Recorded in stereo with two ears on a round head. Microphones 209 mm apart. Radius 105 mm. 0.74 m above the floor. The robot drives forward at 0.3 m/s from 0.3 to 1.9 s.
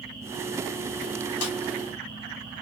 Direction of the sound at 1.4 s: 65° left (ahead or behind).